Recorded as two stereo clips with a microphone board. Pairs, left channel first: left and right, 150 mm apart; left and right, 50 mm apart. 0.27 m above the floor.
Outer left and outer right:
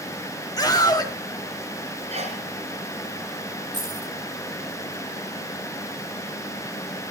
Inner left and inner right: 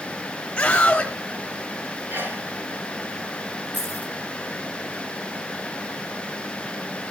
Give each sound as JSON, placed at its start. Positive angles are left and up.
{"t": 0.6, "sound": "a scream", "side_deg": 25, "distance_m": 1.3}
{"t": 2.1, "sound": "a sneeze", "side_deg": -50, "distance_m": 3.0}
{"t": 3.7, "sound": "keys jangling", "side_deg": -30, "distance_m": 6.5}